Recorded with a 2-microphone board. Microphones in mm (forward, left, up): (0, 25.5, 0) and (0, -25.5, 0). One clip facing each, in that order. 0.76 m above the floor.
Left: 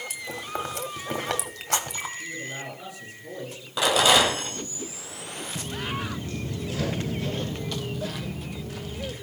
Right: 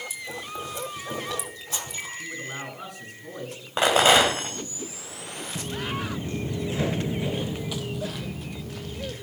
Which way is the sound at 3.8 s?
40° right (ahead or behind).